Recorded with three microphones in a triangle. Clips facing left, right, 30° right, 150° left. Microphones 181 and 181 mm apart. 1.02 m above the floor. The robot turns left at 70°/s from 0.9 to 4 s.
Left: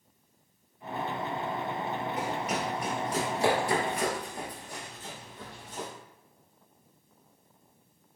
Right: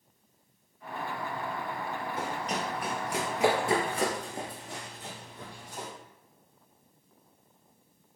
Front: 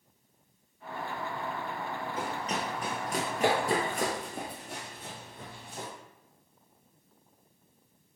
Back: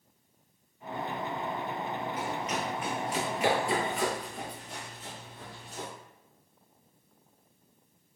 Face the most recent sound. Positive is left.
turn(degrees=-10)